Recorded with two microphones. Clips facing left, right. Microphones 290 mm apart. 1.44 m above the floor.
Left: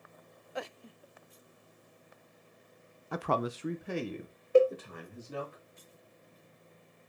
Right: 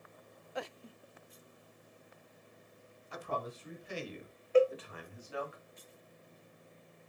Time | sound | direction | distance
3.1 | a man speaking | 60° left (ahead or behind) | 0.6 m
4.5 | a cowbell | 45° left (ahead or behind) | 0.7 m